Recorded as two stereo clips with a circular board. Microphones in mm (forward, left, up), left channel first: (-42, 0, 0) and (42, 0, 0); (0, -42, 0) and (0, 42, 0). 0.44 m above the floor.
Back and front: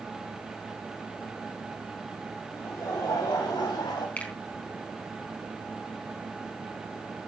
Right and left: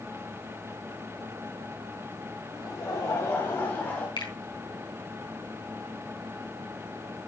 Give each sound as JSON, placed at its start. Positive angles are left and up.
{"t": 2.5, "sound": "laughter", "azimuth_deg": -130, "distance_m": 2.5}
{"t": 4.2, "sound": "a finger snap", "azimuth_deg": -110, "distance_m": 4.0}